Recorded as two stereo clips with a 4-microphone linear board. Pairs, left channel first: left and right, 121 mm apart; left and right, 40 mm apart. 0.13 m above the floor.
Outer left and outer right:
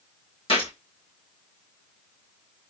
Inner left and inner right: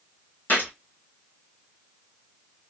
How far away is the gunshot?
About 1.4 m.